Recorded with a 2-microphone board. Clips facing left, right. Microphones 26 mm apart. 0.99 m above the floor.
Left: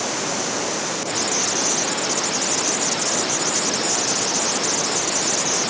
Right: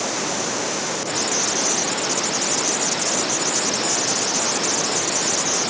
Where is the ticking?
I don't hear ticking.